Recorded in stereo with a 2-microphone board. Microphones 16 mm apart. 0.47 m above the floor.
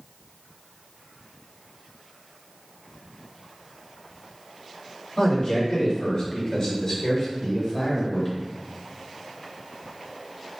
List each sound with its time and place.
5.2 s a man speaking: 55° left (ahead or behind), 1.9 m; by 8.4 s 25° left (ahead or behind), 2 m